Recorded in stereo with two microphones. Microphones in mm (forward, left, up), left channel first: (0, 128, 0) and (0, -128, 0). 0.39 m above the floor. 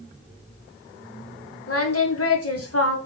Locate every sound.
1.7 s singing: 65° left (ahead or behind), 2.5 m